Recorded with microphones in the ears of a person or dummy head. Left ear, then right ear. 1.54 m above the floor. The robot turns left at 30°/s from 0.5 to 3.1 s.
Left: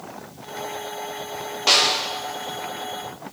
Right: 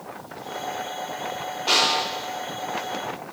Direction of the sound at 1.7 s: 50° left (ahead or behind).